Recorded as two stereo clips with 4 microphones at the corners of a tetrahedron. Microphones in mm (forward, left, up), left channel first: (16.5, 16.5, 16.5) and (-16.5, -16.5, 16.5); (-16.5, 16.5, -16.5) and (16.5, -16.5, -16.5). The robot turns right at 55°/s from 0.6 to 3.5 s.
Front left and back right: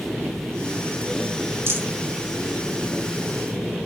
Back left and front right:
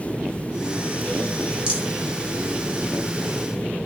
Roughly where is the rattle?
Behind right.